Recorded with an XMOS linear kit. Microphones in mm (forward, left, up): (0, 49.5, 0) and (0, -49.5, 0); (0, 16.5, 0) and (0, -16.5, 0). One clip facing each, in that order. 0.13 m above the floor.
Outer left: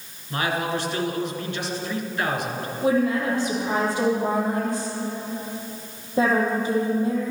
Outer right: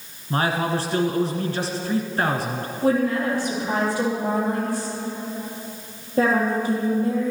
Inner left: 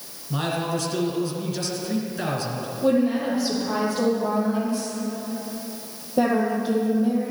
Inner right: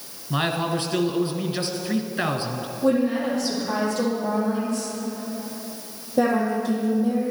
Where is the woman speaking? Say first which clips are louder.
Outer right 1 dB, even; 20° left (ahead or behind), 4 m.